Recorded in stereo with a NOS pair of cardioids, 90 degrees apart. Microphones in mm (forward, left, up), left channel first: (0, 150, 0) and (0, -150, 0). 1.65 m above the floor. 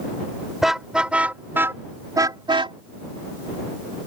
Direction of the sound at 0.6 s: Straight ahead.